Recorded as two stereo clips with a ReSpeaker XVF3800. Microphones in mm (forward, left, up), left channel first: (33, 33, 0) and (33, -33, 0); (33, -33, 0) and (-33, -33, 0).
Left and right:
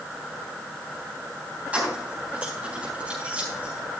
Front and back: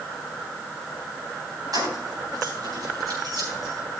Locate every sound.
1.7 s keys jangling: 160° right, 3.5 m